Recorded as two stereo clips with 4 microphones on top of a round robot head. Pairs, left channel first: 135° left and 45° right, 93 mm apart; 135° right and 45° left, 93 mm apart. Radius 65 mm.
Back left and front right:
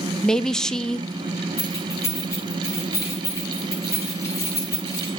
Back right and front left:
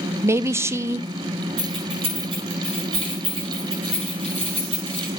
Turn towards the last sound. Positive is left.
turn(degrees=75)